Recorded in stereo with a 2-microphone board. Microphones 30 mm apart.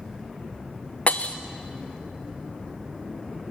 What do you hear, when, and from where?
1.1 s breaking glass: 45° left (ahead or behind), 1.2 m